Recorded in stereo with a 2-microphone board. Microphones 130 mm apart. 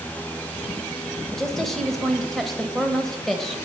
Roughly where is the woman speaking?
Centre.